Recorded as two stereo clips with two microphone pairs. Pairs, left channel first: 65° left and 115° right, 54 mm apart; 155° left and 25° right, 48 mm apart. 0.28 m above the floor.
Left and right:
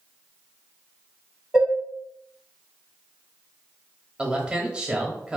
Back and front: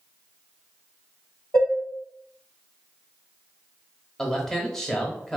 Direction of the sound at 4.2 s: 150° right.